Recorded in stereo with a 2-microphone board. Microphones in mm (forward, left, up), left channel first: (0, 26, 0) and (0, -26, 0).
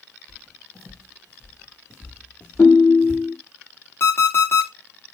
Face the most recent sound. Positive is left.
turn(degrees=50)  # may be behind; listen again after turning